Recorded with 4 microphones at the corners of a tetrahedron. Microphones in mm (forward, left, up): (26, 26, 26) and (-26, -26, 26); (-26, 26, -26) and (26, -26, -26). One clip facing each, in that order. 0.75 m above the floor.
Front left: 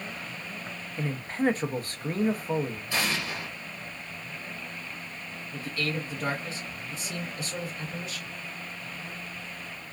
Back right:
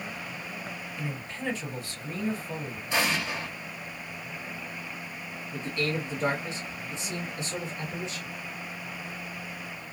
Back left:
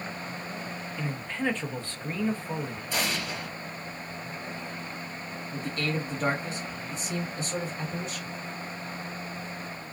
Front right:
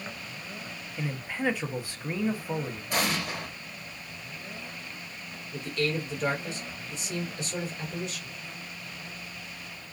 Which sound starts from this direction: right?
An explosion, at 2.9 s.